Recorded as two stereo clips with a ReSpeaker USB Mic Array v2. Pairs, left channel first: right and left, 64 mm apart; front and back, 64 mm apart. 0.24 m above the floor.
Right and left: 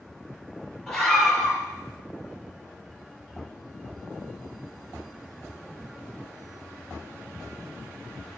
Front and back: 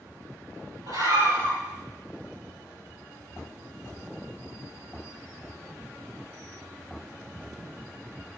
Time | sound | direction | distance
0.9 | a scream | 165° right | 5.5 m